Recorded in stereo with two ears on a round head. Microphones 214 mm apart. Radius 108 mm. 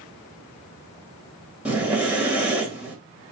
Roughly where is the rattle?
I don't hear a rattle.